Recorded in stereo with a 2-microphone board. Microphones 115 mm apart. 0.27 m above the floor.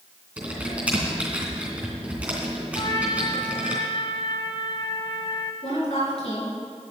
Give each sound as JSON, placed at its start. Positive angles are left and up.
{"t": 0.4, "sound": "typing on a keyboard", "side_deg": -10, "distance_m": 3.0}
{"t": 2.8, "sound": "a trumpet", "side_deg": 45, "distance_m": 1.1}
{"t": 5.6, "sound": "a woman speaking", "side_deg": 65, "distance_m": 4.5}